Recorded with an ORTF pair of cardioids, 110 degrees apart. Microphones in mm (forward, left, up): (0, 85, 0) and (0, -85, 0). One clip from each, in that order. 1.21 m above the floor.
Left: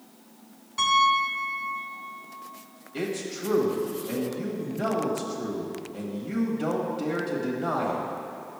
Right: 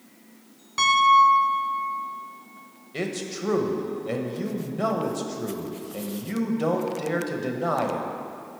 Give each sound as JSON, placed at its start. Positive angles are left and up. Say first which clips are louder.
{"t": 0.8, "sound": "a piano", "louder": "right 5 dB", "azimuth_deg": -40, "distance_m": 1.0}
{"t": 2.9, "sound": "a man speaking", "louder": "right 1 dB", "azimuth_deg": -30, "distance_m": 1.1}